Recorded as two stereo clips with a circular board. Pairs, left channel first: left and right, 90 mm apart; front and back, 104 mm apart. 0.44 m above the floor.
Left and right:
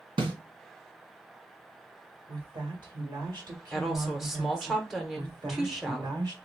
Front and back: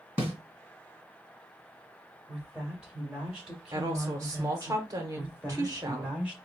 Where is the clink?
I don't hear a clink.